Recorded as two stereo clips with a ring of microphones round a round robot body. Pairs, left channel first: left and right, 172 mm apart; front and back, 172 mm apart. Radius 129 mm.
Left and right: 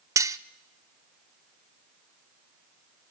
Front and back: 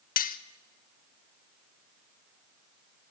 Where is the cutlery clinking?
20° right, 0.7 m.